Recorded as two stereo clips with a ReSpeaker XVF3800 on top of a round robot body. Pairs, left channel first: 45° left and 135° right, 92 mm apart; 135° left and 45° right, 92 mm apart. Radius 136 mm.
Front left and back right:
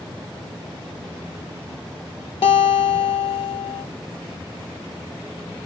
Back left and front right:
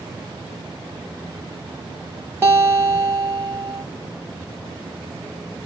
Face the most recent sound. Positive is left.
turn(degrees=20)